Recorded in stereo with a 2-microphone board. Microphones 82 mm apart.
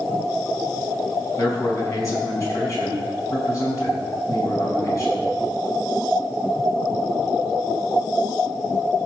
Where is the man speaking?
40° left (ahead or behind), 5 m.